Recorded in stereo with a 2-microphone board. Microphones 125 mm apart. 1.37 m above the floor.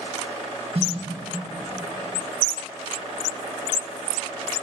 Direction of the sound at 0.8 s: 55° right (ahead or behind).